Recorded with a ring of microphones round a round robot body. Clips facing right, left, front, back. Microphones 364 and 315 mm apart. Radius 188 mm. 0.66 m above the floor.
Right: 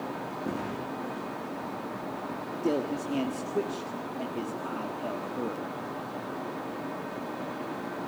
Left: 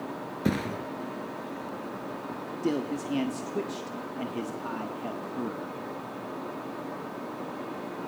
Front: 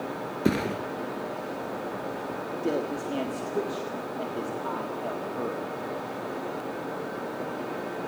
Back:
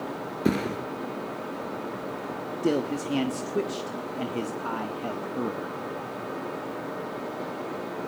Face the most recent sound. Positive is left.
turn(degrees=155)